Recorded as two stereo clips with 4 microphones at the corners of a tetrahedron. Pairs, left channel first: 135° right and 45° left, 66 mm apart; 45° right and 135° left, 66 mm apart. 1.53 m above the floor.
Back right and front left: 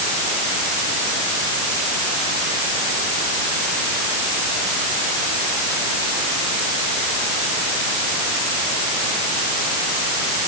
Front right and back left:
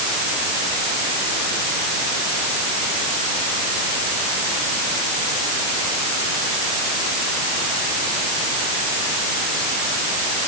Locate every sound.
Only background noise.